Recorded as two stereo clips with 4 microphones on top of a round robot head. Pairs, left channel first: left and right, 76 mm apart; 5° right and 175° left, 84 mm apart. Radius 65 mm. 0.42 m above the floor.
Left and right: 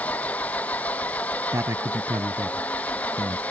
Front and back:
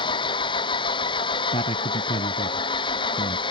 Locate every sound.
0.0 s an engine running: 15° left
1.5 s a man speaking: 30° right